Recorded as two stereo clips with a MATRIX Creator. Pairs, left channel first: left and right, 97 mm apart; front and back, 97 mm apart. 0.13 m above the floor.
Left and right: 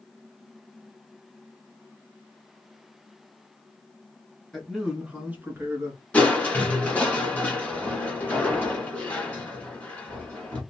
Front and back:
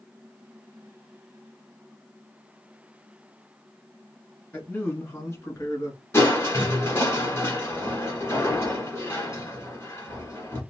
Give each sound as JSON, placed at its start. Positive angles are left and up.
{"t": 4.5, "sound": "a man speaking", "azimuth_deg": 5, "distance_m": 1.4}
{"t": 6.1, "sound": "crushing", "azimuth_deg": 25, "distance_m": 1.7}